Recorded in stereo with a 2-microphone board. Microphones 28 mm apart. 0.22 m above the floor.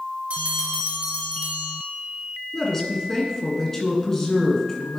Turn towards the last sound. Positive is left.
turn(degrees=15)  # may be behind; listen again after turning